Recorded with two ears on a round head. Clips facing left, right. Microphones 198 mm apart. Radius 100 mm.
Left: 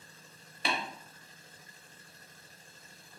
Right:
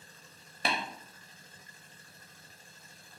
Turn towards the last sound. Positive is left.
turn(degrees=-40)  # may be behind; listen again after turning